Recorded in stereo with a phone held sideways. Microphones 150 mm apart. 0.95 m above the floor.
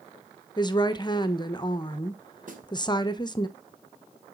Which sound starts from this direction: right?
A snare drum, at 2.5 s.